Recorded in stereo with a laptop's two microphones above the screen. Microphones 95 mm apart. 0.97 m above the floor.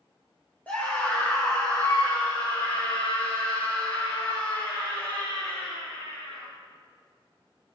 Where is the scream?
15° left (ahead or behind), 3 m; by 6.5 s 85° left, 7.5 m.